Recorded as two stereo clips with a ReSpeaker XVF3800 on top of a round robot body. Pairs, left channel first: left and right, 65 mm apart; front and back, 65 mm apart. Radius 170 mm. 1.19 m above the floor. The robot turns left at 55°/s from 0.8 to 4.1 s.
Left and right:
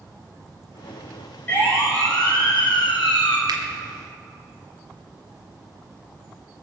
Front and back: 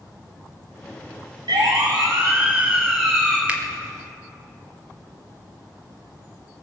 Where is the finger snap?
105° right, 1.6 m; by 3.6 s 115° right, 1.6 m.